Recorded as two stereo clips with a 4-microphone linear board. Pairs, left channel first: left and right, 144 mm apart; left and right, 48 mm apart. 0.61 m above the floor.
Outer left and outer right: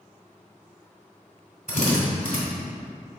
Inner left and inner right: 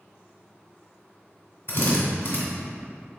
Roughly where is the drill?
Left.